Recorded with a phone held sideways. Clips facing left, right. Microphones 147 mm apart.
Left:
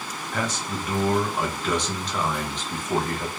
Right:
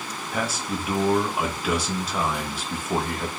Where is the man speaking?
10° right (ahead or behind), 0.6 m.